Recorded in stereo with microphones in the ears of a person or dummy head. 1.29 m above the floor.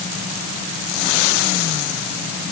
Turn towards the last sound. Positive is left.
No sound to turn to.